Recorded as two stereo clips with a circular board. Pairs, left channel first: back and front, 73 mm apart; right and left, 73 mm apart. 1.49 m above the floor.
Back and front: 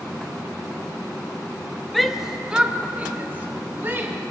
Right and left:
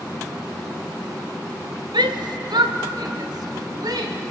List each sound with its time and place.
1.9 s a shout: 95° left, 1.4 m; by 4.2 s 60° left, 3 m